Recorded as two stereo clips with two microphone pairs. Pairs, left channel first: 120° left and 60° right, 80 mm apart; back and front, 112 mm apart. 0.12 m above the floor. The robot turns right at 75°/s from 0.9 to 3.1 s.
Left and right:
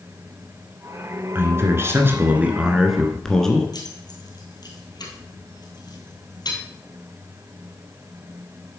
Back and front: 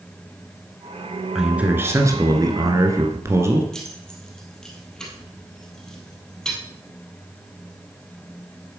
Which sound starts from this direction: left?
Keys jangling, at 3.7 s.